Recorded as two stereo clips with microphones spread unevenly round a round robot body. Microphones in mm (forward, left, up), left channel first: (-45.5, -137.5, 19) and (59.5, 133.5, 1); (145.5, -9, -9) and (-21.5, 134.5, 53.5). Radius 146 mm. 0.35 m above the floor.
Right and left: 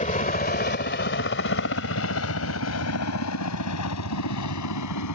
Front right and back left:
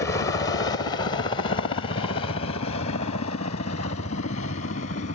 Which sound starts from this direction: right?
A helicopter, at 0.0 s.